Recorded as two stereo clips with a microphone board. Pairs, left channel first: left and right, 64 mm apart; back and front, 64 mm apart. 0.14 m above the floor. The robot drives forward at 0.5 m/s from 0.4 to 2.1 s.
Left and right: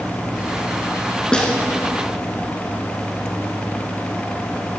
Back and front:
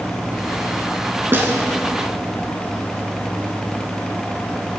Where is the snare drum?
20° left, 1.3 m; by 1.5 s 25° left, 1.2 m.